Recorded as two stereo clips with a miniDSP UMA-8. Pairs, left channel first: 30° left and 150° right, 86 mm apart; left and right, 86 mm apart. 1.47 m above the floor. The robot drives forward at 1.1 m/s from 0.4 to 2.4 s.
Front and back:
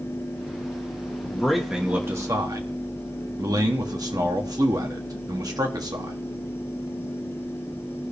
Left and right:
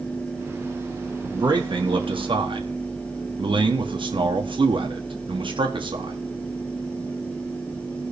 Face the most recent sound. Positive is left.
turn(degrees=-105)